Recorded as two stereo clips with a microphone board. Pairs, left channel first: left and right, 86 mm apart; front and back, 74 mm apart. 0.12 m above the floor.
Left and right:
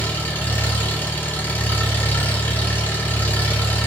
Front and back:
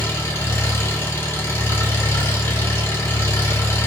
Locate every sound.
0.0 s an engine running: 35° left, 1.6 m